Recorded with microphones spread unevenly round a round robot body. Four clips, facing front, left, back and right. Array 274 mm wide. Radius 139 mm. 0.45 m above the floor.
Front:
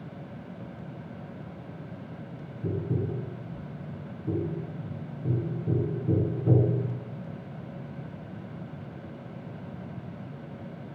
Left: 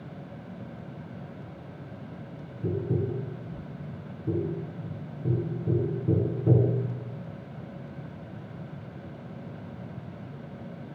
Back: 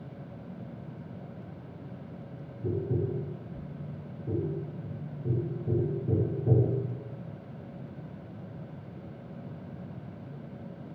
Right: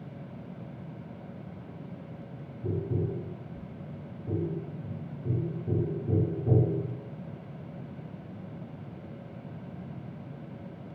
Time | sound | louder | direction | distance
2.6 | tapping | left 3 dB, even | 45° left | 0.7 m